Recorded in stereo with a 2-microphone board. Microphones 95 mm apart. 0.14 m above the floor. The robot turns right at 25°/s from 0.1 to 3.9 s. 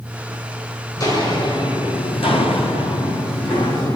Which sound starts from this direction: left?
Footsteps, at 1.0 s.